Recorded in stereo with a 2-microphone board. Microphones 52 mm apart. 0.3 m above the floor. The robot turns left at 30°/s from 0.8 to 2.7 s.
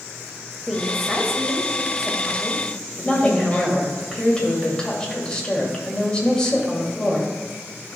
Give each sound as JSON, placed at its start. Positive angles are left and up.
{"t": 0.7, "sound": "a woman speaking", "side_deg": 5, "distance_m": 1.2}
{"t": 3.0, "sound": "a woman speaking", "side_deg": 20, "distance_m": 1.4}